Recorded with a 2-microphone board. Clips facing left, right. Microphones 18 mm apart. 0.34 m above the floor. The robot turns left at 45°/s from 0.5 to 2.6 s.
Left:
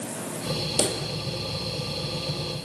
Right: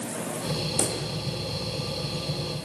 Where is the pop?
45° left (ahead or behind), 4 m; by 1.0 s 55° left (ahead or behind), 4 m.